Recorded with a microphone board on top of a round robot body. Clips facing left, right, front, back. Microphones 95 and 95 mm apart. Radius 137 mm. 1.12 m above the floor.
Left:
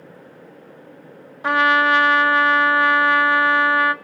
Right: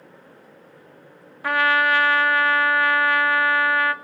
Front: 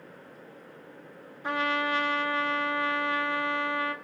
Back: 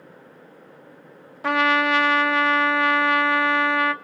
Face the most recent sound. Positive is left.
turn(degrees=160)